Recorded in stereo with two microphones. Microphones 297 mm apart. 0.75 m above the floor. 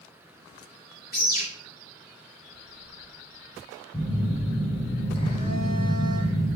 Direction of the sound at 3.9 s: 25° left (ahead or behind).